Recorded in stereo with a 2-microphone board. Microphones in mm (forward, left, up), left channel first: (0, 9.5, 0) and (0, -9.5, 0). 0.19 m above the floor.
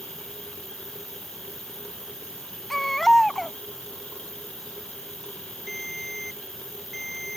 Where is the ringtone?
Centre (ahead or behind).